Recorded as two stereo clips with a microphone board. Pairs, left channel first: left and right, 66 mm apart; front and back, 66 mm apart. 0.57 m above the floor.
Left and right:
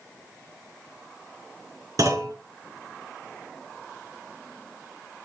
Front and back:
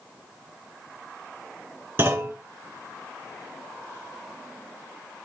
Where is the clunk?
125° right, 3.5 m.